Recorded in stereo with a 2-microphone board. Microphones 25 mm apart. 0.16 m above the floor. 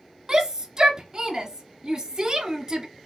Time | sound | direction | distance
0.3 | a shout | 30° right (ahead or behind) | 1.5 m